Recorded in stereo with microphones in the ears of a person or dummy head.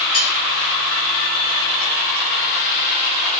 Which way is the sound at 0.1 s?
40° left (ahead or behind).